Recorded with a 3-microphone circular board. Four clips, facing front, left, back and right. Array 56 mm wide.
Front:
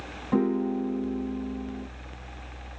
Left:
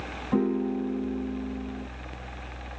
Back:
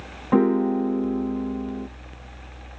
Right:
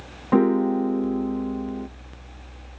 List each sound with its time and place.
0.3 s a piano: 130° right, 0.6 m